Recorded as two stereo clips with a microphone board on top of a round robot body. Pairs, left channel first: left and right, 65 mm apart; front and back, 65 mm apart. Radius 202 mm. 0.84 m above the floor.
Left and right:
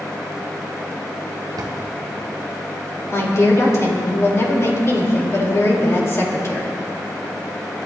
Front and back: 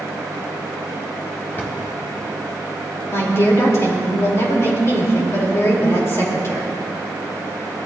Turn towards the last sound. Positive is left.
turn(degrees=45)